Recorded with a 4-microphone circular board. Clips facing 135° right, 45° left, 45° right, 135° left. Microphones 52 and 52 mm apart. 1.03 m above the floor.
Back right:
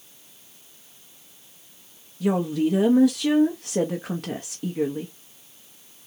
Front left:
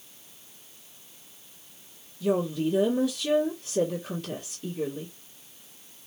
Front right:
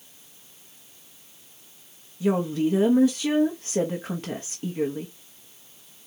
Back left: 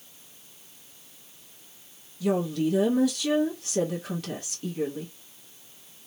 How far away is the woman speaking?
About 0.9 m.